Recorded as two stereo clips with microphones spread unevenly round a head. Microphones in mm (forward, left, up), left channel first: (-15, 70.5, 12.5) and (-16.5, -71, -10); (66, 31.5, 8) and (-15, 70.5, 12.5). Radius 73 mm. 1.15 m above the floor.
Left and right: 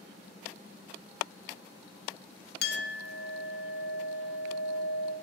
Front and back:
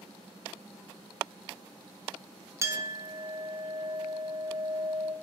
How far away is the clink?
About 0.9 m.